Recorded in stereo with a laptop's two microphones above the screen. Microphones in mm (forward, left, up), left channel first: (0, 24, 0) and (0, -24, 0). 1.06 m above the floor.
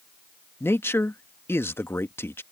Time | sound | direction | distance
0.6 | a man speaking | 55° left (ahead or behind) | ?